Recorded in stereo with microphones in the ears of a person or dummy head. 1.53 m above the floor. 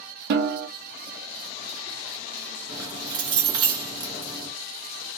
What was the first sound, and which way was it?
A snare drum, 55° right (ahead or behind).